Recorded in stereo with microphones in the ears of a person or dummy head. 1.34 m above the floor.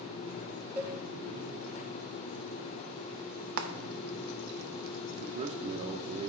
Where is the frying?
55° right (ahead or behind), 0.7 m.